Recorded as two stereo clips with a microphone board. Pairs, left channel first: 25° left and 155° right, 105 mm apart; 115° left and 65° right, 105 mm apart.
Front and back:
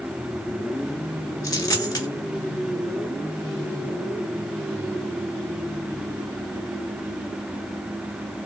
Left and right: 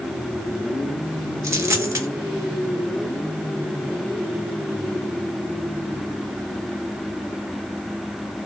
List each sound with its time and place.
1.4 s a dropped coin: 15° right, 1.8 m